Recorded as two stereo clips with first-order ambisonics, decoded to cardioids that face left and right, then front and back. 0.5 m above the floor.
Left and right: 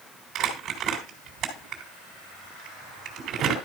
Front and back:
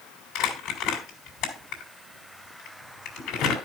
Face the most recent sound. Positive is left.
turn(degrees=-40)